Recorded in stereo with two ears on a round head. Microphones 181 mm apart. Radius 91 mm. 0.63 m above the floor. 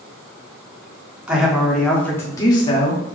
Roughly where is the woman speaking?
Centre.